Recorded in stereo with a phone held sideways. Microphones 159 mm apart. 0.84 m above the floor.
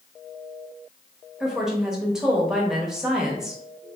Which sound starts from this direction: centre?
A woman speaking, at 1.4 s.